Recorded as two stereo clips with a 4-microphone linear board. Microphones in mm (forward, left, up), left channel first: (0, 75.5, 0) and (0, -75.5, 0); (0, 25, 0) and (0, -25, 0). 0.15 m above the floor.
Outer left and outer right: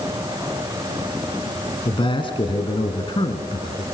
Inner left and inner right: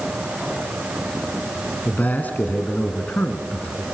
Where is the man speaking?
35° left (ahead or behind), 1.8 m.